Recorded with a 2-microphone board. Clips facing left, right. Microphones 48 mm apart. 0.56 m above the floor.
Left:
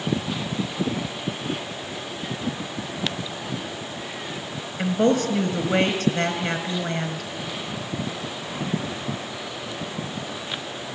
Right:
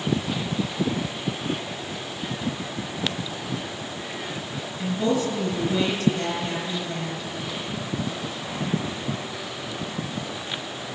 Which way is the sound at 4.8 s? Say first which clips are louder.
Left 4 dB; 55° left (ahead or behind).